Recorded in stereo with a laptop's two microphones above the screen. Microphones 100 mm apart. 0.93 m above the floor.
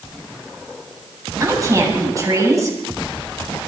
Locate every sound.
1.4 s a woman speaking: 30° right (ahead or behind), 8.5 m